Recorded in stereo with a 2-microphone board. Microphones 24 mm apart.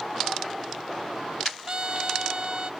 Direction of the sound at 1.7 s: 35° right (ahead or behind).